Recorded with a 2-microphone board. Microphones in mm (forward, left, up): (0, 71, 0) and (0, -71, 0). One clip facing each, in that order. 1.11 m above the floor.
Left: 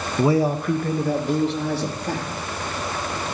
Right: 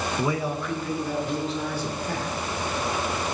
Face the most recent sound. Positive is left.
turn(degrees=75)  # may be behind; listen again after turning